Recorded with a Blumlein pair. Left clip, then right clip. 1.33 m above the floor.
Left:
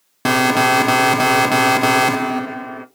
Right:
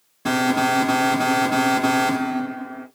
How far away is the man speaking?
No man speaking in this recording.